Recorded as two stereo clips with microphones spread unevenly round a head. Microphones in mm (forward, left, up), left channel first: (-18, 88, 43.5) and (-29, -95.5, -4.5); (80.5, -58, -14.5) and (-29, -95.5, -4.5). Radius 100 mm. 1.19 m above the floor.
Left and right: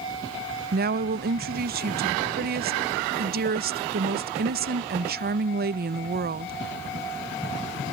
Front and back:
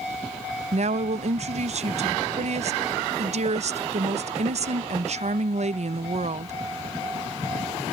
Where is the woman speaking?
135° right.